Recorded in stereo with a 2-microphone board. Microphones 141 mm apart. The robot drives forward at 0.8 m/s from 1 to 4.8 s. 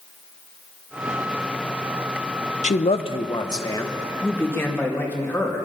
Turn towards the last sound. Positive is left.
turn(degrees=15)  # may be behind; listen again after turning